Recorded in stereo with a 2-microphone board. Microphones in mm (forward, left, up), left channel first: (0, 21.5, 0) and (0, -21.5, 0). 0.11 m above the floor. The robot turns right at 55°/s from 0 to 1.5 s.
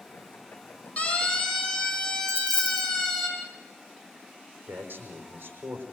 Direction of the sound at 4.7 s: 45° right (ahead or behind).